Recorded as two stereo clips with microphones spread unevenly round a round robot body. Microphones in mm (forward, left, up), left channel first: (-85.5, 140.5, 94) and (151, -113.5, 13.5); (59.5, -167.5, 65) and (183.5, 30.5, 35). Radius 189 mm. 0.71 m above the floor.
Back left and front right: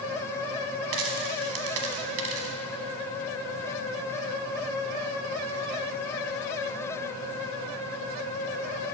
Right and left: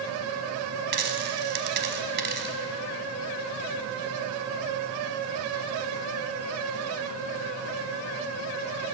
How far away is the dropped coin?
About 1.1 m.